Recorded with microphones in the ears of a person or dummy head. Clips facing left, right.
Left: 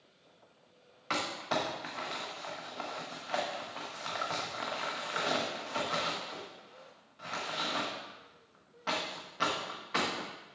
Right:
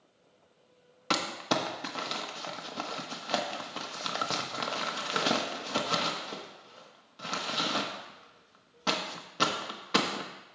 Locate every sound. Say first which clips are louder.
1.1 s crumpling: right 4 dB; 55° right (ahead or behind), 1.1 m